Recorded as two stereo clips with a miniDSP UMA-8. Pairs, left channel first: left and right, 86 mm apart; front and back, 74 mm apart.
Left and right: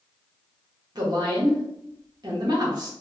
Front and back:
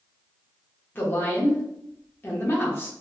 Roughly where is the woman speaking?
Ahead right.